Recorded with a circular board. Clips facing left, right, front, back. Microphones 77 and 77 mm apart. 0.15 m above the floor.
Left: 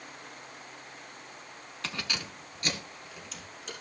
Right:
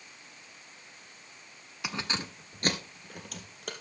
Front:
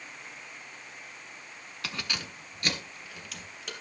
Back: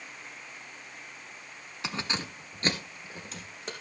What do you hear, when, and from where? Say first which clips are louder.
1.8 s keys jangling: right 2 dB, back 3 dB; 150° right, 0.9 m; by 3.7 s 120° right, 3 m